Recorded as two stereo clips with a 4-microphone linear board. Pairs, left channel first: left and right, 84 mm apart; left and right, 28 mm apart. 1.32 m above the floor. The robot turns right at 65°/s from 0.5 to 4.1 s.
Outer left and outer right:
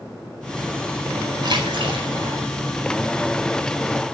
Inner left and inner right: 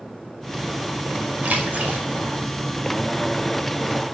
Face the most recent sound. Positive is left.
turn(degrees=55)